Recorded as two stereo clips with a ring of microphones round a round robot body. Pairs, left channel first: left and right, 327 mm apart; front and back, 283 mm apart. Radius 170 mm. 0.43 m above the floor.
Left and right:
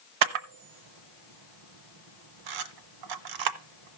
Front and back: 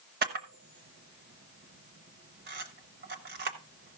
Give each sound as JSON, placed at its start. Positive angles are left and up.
{"t": 0.2, "sound": "a camera shutter", "azimuth_deg": -115, "distance_m": 0.7}